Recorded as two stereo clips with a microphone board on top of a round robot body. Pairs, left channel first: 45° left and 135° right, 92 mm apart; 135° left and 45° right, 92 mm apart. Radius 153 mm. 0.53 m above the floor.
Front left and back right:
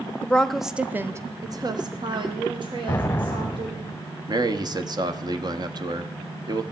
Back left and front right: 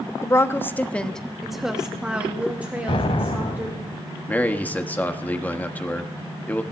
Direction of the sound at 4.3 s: 155° right.